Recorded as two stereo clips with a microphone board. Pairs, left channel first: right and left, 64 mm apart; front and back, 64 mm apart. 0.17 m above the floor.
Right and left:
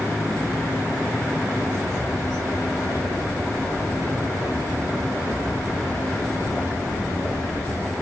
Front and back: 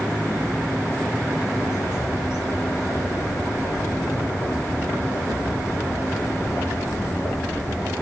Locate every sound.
1.5 s a bird: 50° right, 6 m